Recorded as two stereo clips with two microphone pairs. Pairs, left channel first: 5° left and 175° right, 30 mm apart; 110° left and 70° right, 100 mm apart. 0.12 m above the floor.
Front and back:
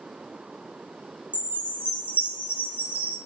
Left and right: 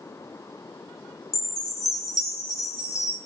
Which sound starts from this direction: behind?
A chime, at 1.3 s.